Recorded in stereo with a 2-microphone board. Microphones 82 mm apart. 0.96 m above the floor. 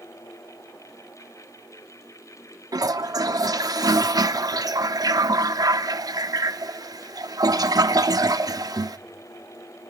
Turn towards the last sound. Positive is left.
turn(degrees=-50)  # may be behind; listen again after turning